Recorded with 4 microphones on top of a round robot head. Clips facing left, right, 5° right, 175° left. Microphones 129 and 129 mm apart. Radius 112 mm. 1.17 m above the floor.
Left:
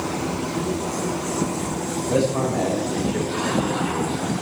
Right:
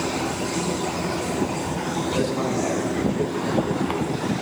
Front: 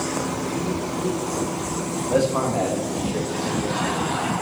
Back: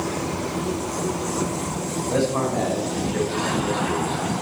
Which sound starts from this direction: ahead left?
A man speaking, at 2.1 s.